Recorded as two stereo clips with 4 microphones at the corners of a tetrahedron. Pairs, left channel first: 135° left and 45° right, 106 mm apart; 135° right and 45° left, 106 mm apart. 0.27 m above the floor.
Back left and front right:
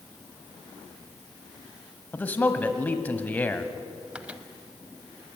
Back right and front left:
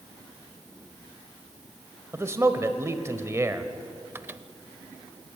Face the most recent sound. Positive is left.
turn(degrees=15)